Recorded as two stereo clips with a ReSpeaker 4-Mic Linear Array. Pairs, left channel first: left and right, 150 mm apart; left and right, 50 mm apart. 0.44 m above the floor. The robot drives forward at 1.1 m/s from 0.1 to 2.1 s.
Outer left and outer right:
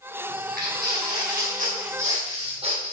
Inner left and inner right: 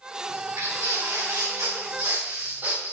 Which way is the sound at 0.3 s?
80° right.